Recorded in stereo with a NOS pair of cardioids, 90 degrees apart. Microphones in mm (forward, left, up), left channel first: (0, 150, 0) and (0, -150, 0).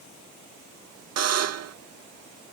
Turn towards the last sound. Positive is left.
turn(degrees=-60)